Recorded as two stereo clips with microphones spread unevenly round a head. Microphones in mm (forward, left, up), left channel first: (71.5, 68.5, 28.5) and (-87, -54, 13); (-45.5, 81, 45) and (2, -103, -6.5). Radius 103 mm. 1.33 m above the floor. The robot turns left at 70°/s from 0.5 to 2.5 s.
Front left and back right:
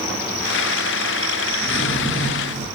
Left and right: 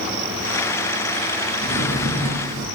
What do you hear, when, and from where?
1.6 s a drawer: 25° right, 8.5 m; by 2.7 s 85° right, 8.5 m